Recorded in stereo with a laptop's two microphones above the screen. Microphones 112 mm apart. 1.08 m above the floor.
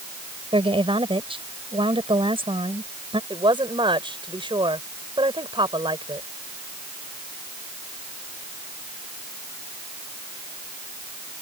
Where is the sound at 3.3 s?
45° right (ahead or behind).